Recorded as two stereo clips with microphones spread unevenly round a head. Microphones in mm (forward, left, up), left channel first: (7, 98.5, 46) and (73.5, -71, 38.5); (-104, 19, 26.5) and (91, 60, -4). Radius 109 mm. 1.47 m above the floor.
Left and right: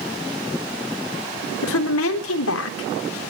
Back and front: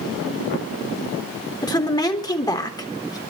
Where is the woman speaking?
120° left, 3.5 m.